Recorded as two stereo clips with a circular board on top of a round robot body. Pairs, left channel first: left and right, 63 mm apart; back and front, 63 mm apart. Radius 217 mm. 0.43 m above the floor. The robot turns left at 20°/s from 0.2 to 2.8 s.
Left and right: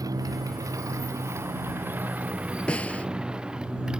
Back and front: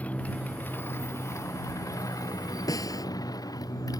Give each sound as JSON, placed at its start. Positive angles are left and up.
{"t": 0.0, "sound": "a motorcycle", "azimuth_deg": -115}
{"t": 2.7, "sound": "a snare drum", "azimuth_deg": 165}